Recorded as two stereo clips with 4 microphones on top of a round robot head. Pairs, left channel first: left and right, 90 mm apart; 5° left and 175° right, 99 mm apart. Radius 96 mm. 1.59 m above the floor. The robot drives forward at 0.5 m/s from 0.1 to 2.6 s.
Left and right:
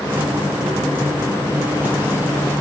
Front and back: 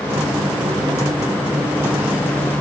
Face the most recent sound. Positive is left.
No sound to turn to.